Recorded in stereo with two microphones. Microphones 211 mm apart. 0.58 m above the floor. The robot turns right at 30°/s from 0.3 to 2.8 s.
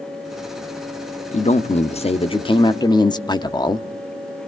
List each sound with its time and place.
1.3 s a man speaking: 95° left, 0.7 m; by 3.9 s 140° left, 0.7 m